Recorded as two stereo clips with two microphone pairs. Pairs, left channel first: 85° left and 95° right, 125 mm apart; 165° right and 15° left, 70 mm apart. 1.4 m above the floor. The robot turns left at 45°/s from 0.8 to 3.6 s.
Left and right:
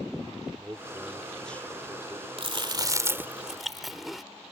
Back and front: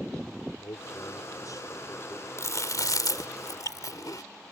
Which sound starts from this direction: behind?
A man speaking, at 0.6 s.